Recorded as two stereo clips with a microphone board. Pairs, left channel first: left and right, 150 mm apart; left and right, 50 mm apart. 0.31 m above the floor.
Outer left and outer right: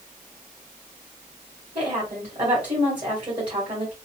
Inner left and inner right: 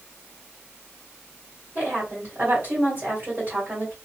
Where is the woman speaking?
40° right (ahead or behind), 1.6 m.